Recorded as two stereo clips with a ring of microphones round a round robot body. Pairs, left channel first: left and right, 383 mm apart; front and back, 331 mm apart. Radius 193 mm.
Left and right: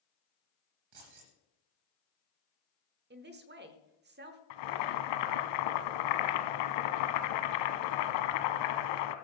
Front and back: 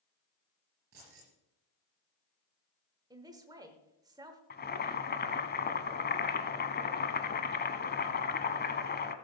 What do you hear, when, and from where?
0.9 s keys jangling: 120° right, 4 m
3.1 s a man speaking: 115° right, 1.0 m
4.5 s boiling: 65° left, 0.9 m